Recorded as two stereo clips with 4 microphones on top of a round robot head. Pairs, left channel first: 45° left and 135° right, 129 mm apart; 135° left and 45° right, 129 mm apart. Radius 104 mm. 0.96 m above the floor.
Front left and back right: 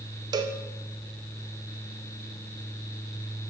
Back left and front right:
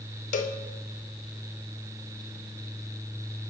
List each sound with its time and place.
0.3 s a cowbell: 165° left, 0.5 m